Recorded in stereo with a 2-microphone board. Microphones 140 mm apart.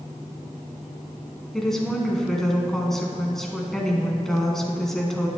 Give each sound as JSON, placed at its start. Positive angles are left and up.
{"t": 1.5, "sound": "a woman speaking", "side_deg": 5, "distance_m": 1.3}